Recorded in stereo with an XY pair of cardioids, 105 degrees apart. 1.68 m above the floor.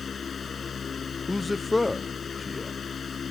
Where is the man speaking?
15° left.